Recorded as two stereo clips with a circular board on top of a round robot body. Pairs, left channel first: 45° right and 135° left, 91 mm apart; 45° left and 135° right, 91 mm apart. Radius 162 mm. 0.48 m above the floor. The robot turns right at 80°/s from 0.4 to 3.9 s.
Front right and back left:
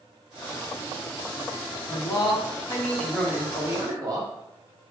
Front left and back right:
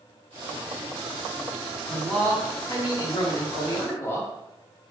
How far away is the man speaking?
About 1.4 m.